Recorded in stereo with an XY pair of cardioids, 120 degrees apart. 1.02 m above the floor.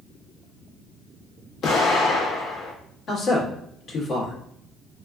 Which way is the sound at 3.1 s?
55° left.